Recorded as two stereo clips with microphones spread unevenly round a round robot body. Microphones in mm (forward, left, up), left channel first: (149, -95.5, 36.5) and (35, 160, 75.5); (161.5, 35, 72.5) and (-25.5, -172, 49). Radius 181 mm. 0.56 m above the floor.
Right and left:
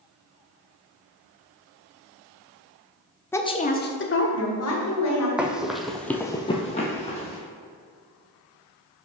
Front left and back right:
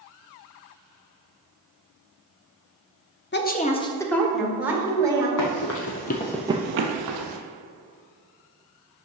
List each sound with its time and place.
3.3 s a woman speaking: 5° left, 1.0 m; by 5.3 s 55° right, 2.5 m
5.4 s running footsteps: 30° left, 1.3 m; by 7.4 s 145° right, 1.1 m